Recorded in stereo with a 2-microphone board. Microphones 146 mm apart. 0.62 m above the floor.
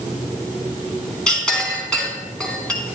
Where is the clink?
5° left (ahead or behind), 3 m.